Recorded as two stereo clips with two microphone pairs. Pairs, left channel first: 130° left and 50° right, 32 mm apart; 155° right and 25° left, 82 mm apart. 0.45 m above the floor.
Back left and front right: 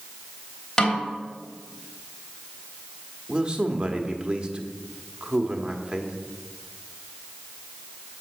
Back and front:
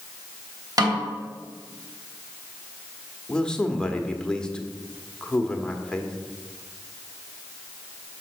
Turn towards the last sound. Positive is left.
turn(degrees=-85)